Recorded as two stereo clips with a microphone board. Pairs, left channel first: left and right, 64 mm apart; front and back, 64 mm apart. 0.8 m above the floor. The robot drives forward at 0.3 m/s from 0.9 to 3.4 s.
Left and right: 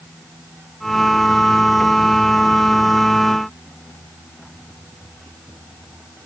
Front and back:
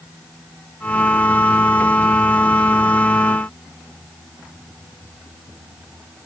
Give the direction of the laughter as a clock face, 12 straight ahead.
I don't hear laughter.